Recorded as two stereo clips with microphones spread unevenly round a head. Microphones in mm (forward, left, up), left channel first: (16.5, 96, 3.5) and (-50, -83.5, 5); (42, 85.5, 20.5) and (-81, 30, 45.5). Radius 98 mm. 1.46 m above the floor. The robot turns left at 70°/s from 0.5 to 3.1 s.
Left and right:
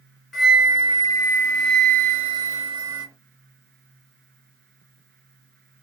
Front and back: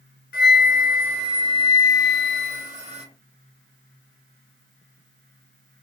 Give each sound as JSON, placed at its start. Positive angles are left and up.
{"t": 0.3, "sound": "a flute", "azimuth_deg": -20, "distance_m": 1.3}